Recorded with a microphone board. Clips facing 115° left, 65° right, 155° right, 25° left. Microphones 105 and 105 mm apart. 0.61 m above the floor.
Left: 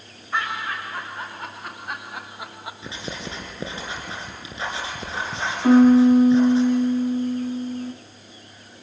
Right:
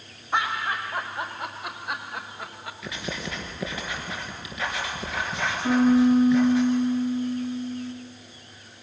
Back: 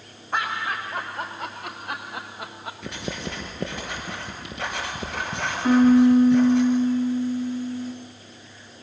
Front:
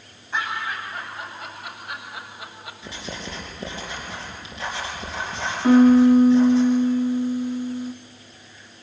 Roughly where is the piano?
Left.